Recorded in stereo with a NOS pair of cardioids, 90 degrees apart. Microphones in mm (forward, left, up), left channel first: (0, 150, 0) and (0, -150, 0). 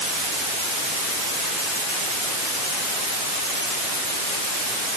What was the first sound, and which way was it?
Only background noise.